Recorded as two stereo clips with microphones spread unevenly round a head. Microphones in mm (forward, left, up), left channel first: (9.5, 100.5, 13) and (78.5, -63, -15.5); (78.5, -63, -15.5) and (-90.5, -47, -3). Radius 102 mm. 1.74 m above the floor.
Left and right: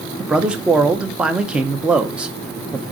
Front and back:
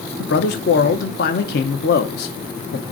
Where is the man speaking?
20° left, 1.1 m.